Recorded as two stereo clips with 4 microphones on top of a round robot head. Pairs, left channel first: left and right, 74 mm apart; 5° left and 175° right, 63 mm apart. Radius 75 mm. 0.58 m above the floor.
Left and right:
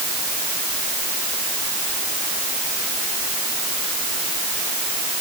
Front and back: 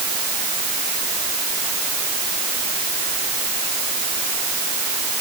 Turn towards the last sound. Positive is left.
No sound to turn to.